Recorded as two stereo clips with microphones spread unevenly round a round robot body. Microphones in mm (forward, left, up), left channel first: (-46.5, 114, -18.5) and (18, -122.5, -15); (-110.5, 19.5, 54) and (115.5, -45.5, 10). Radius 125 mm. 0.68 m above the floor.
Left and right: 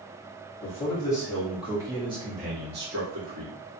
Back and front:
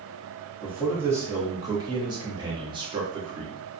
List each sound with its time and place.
0.6 s a man speaking: 50° left, 1.1 m; by 3.5 s 70° right, 1.3 m